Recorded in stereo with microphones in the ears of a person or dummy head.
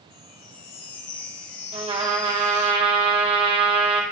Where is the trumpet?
30° right (ahead or behind), 1.3 m.